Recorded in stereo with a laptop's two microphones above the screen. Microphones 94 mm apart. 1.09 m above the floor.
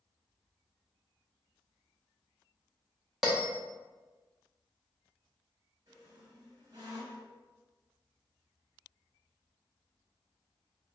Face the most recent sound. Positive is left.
turn(degrees=-40)  # may be behind; listen again after turning